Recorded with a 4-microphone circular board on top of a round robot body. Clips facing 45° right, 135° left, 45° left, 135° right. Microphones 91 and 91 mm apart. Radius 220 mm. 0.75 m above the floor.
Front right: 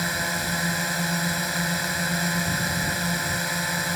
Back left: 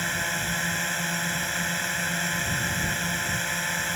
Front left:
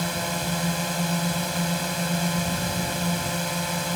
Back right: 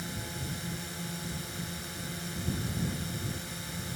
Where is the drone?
35° left.